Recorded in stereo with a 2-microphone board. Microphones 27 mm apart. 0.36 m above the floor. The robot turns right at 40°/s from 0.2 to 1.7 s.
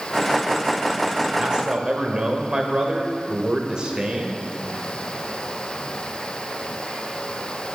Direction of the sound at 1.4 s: 30° right (ahead or behind).